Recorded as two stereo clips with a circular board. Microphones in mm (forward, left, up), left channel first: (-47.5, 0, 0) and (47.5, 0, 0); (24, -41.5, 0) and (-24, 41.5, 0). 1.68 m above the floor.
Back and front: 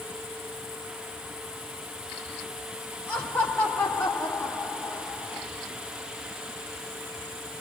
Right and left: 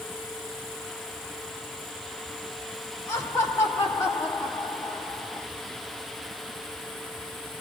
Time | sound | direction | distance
3.1 | laughter | 120° right | 1.2 m